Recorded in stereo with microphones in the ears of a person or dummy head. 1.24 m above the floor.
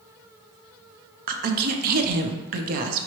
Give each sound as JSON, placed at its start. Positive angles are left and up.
{"t": 1.3, "sound": "a woman speaking", "side_deg": -50, "distance_m": 0.5}